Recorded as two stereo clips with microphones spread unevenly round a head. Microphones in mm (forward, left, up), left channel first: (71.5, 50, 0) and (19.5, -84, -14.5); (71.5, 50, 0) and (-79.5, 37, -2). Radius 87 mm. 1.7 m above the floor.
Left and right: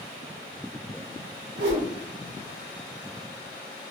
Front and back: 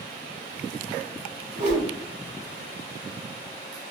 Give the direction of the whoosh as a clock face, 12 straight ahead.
4 o'clock.